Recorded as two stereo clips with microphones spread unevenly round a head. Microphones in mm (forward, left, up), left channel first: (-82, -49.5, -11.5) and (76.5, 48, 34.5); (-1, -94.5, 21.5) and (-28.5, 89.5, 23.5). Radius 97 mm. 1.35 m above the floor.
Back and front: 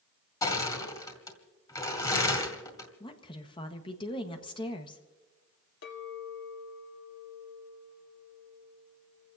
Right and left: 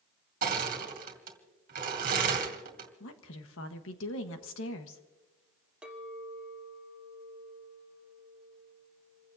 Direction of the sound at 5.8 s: 175° right.